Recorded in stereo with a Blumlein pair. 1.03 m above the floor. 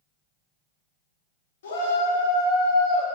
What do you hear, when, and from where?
1.6 s a shout: 60° left, 2.5 m; by 3.0 s 35° left, 3.5 m